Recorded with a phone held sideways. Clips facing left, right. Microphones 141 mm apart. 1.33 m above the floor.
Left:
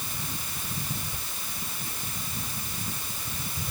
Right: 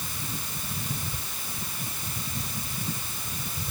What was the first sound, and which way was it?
Only background noise.